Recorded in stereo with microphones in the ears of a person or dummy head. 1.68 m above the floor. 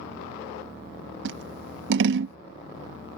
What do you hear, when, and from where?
1.2 s scissors: 60° right (ahead or behind)